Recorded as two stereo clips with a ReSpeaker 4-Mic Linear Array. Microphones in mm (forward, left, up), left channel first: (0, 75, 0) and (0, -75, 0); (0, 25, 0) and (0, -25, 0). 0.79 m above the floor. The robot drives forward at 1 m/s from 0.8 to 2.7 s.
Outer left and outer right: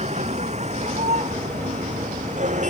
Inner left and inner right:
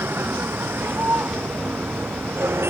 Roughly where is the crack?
No crack in this recording.